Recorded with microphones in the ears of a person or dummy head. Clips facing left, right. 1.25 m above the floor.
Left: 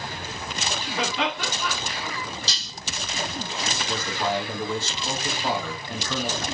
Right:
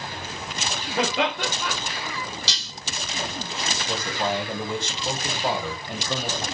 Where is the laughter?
50° right (ahead or behind), 1.5 m.